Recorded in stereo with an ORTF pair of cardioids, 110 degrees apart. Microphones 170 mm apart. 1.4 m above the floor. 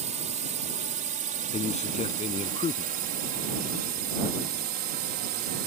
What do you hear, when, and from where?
0.0 s a drone: 45° right; by 5.7 s 75° right
1.5 s a man speaking: 40° left